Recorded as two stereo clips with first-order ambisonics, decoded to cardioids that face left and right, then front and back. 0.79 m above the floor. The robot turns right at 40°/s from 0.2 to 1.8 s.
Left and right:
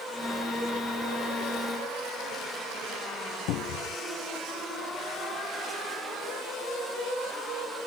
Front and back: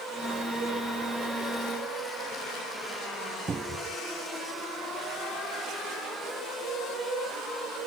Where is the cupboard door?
110° left.